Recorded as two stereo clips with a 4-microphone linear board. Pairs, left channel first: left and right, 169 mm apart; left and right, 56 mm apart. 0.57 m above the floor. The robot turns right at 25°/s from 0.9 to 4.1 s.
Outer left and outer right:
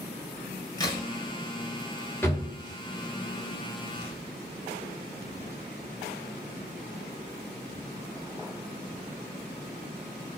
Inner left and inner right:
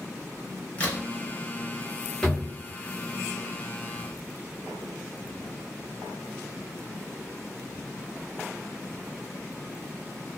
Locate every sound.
0.8 s a crack: 20° left (ahead or behind), 0.8 m; by 1.0 s 25° left (ahead or behind), 0.8 m
2.2 s a drawer: 10° left (ahead or behind), 1.0 m; by 2.5 s 20° left (ahead or behind), 1.0 m